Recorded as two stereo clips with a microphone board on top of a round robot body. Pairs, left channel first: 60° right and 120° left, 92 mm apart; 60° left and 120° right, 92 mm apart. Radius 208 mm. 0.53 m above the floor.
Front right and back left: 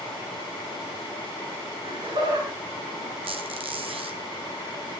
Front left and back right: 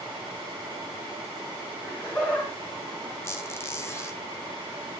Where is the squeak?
125° left, 3 m.